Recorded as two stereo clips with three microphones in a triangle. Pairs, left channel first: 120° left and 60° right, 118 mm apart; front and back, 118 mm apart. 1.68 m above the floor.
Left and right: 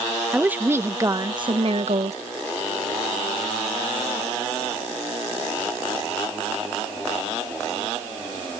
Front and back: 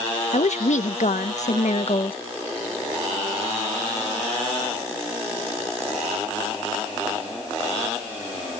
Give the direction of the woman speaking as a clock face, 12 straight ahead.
11 o'clock.